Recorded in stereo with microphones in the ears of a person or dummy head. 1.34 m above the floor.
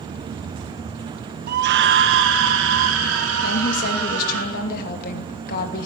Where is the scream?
50° right (ahead or behind), 0.5 m; by 4.4 s 75° right (ahead or behind), 3 m.